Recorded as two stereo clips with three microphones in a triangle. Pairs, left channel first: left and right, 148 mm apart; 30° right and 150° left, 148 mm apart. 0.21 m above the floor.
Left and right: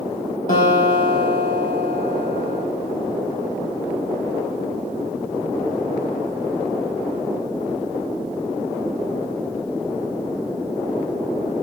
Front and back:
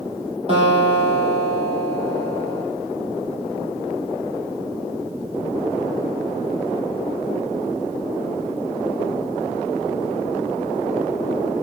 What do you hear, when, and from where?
0.5 s a guitar: 105° left, 3.5 m